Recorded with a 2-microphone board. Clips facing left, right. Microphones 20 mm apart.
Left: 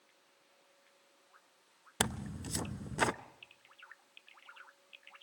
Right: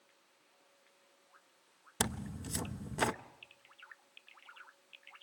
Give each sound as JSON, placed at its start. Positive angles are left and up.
{"t": 2.0, "sound": "tearing paper", "side_deg": 15, "distance_m": 0.6}